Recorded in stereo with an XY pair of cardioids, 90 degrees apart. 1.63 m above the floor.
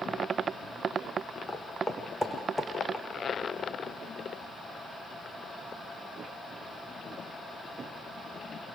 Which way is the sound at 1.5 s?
25° left.